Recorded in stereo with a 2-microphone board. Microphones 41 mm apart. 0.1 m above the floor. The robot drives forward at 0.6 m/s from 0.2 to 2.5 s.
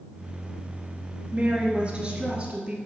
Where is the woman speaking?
30° right (ahead or behind), 1.2 m; by 2.8 s 25° right (ahead or behind), 1.5 m.